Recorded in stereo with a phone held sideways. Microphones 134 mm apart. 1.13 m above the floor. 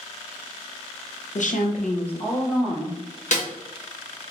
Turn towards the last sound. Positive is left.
turn(degrees=65)  # may be behind; listen again after turning